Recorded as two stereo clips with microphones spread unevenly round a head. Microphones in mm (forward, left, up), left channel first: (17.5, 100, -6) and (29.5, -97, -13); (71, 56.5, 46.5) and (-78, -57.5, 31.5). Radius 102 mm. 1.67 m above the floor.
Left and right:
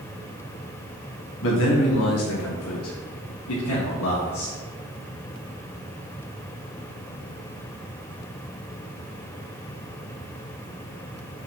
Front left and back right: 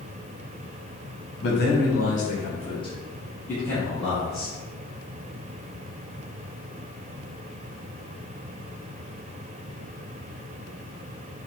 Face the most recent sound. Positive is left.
turn(degrees=130)